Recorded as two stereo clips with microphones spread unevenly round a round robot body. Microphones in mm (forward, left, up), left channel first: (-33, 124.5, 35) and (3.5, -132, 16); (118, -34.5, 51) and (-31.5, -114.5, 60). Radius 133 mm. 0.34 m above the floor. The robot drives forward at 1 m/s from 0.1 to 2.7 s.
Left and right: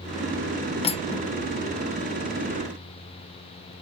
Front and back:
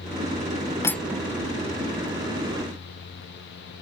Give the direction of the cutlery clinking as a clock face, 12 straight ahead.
10 o'clock.